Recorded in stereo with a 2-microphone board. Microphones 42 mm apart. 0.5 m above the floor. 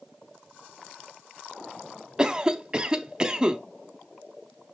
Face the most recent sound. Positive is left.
turn(degrees=-20)  # may be behind; listen again after turning